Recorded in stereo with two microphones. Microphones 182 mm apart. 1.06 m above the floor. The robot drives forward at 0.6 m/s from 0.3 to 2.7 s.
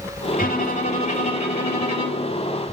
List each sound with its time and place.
0.3 s a violin: 50° left (ahead or behind), 2 m; by 2.3 s 30° left (ahead or behind), 3 m